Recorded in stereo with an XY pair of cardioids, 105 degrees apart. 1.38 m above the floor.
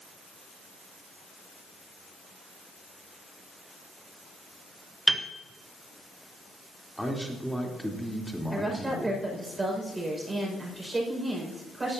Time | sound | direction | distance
5.1 | a piano | 20° right | 1.0 m
7.0 | a man speaking | straight ahead | 3.5 m
8.5 | a woman speaking | 25° right | 5.5 m